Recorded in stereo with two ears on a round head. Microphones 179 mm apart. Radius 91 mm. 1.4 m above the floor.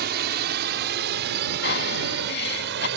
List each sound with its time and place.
0.0 s a drone: 55° right (ahead or behind); by 3.0 s 60° right (ahead or behind)
1.6 s breathing: 50° left (ahead or behind)